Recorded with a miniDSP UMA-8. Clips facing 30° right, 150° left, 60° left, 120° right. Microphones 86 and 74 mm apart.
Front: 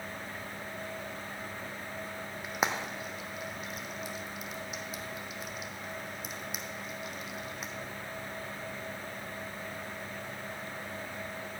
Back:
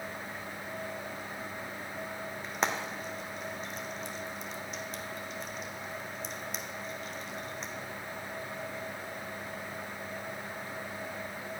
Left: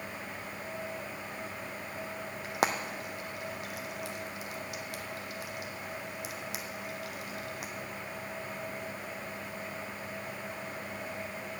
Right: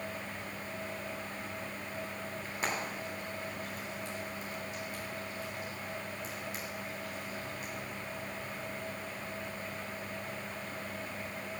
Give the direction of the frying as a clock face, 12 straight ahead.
10 o'clock.